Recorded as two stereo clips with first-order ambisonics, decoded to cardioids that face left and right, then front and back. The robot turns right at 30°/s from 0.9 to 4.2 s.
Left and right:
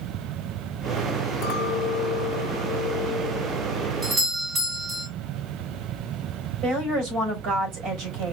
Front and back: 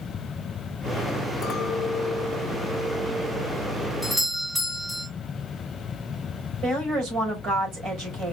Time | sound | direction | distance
1.4 | a clink | 60° left | 1.8 m
4.0 | a doorbell | 110° right | 1.4 m
6.6 | a woman speaking | 130° right | 3.5 m